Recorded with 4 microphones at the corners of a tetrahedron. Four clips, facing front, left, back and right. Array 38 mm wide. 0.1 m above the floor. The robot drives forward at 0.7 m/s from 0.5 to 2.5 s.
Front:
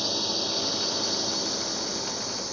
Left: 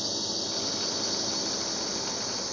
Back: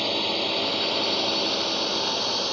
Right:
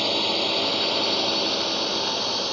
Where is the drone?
120° right; by 2.5 s 135° right.